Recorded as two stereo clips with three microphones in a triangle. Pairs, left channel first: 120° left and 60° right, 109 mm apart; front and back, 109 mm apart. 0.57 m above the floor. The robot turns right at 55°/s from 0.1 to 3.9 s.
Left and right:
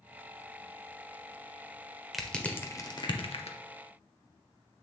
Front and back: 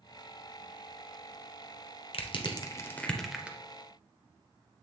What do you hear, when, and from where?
2.1 s crushing: 25° left, 1.0 m; by 3.6 s 105° left, 1.0 m